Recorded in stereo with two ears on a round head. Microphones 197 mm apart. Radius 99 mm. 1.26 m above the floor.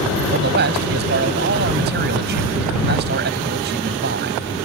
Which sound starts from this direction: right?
A man speaking, at 0.3 s.